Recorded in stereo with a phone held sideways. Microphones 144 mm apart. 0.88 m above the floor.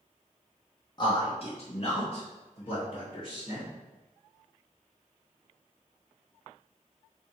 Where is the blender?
No blender in this recording.